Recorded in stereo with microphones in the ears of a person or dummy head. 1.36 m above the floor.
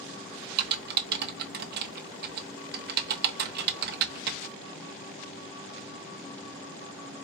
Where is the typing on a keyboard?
55° right (ahead or behind), 1.1 m.